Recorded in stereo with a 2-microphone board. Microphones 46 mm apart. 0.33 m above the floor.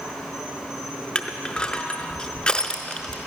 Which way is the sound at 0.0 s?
10° right (ahead or behind).